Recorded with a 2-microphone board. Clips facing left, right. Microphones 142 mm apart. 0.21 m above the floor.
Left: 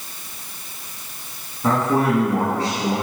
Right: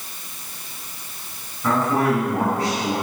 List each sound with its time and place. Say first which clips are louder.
1.6 s a man speaking: left 1 dB; 25° left (ahead or behind), 1.5 m